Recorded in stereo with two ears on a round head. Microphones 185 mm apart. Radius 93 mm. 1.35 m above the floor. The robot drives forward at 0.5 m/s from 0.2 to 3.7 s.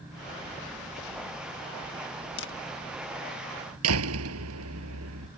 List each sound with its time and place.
2.4 s a camera shutter: 55° left (ahead or behind); by 2.5 s 60° left (ahead or behind)
3.8 s a door slam: 85° right